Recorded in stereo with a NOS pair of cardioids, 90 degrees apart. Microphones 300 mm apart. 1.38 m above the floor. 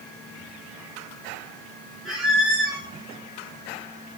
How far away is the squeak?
About 1.3 m.